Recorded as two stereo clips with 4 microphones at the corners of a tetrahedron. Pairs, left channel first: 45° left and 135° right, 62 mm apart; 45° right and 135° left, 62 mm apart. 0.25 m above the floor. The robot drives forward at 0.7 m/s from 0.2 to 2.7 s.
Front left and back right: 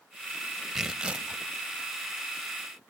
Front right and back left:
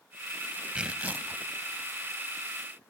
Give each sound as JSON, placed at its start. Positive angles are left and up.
{"t": 0.8, "sound": "tearing paper", "azimuth_deg": 155, "distance_m": 0.7}